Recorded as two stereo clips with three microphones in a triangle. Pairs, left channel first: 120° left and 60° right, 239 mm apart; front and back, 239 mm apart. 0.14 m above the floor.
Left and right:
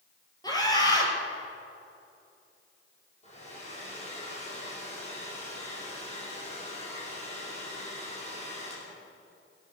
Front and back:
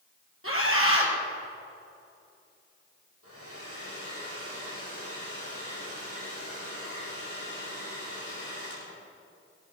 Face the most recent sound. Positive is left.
turn(degrees=180)